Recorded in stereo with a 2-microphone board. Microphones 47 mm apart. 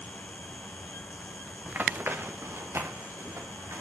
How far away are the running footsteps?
About 0.8 m.